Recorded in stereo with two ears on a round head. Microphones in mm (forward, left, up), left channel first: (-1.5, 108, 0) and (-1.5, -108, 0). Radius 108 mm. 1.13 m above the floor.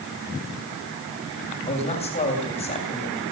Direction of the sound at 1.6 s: 25° left (ahead or behind).